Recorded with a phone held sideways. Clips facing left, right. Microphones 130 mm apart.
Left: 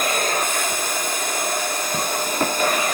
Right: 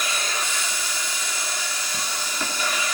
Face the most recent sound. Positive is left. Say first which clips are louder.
# left 7 dB
turn(degrees=50)  # may be behind; listen again after turning